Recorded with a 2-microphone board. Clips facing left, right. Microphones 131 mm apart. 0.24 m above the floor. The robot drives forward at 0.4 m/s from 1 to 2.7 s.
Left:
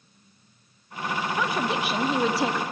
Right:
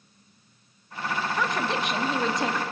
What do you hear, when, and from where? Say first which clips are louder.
1.4 s a woman speaking: left 1 dB; 5° left (ahead or behind), 0.9 m